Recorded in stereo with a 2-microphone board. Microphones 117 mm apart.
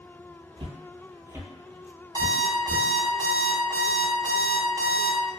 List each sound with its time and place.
0.6 s footsteps: 50° right (ahead or behind), 0.6 m; by 2.9 s 15° left (ahead or behind), 1.3 m
2.1 s an alarm clock: 35° right (ahead or behind), 0.7 m